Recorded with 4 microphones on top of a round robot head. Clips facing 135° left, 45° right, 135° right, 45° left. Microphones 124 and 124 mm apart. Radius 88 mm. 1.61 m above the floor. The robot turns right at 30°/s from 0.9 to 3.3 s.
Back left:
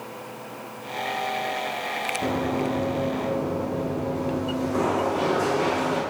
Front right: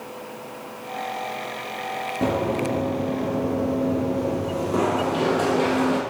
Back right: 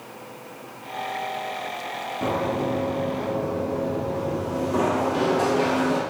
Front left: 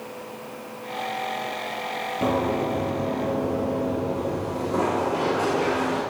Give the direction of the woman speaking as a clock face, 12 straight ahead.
I don't hear a woman speaking.